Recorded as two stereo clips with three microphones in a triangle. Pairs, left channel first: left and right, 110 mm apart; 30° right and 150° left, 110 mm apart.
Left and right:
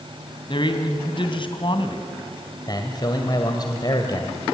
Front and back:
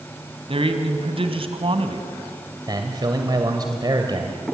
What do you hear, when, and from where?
0.5 s a man speaking: 125° left, 2.5 m
2.7 s a man speaking: 120° left, 2.0 m